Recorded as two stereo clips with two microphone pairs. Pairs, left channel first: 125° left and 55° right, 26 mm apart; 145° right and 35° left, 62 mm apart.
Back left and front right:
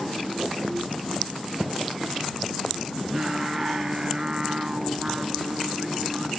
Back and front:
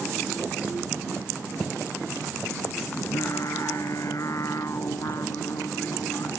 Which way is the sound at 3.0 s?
115° right.